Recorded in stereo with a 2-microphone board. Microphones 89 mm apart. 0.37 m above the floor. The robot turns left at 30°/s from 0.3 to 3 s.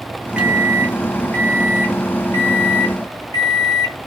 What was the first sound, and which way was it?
A microwave, 165° right.